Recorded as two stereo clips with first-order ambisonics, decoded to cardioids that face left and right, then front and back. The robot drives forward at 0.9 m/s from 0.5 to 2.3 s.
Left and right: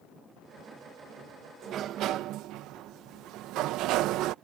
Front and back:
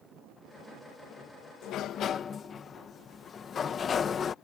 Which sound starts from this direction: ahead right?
A sliding door, at 1.6 s.